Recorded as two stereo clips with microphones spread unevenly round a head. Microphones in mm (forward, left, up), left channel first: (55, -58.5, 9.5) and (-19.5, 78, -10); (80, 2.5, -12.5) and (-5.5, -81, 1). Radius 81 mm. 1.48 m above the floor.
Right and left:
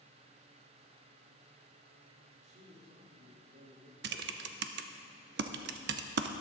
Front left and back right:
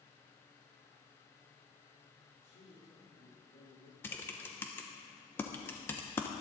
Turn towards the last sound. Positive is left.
turn(degrees=120)